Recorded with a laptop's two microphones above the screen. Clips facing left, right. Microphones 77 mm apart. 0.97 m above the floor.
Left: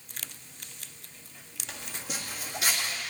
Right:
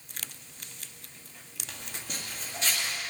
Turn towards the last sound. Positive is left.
turn(degrees=15)  # may be behind; listen again after turning